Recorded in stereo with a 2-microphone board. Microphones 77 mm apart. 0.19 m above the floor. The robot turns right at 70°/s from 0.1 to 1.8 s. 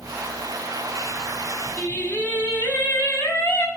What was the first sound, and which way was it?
Singing, 25° left (ahead or behind).